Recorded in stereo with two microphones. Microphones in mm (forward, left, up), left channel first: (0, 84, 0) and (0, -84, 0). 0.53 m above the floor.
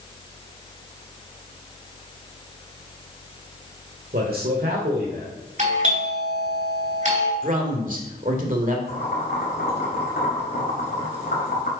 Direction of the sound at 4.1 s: 60° right (ahead or behind).